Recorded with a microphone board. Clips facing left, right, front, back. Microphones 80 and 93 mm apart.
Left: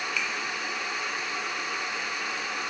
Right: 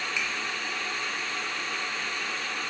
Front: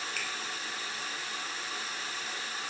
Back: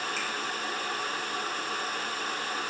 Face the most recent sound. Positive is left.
turn(degrees=-25)